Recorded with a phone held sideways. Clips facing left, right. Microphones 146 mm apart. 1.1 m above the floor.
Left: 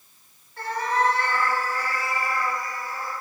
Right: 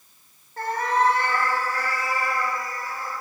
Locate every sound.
0.6 s a cat meowing: 45° right (ahead or behind), 0.7 m; by 3.1 s 75° right (ahead or behind), 2 m